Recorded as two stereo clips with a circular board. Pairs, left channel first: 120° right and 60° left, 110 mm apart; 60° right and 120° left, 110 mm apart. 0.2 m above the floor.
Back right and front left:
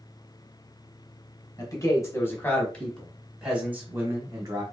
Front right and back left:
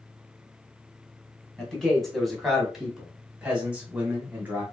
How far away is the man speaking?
About 1.8 m.